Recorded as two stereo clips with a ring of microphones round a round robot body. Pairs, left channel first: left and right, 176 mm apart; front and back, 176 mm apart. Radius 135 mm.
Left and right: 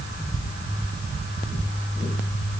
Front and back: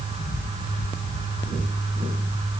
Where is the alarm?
I don't hear an alarm.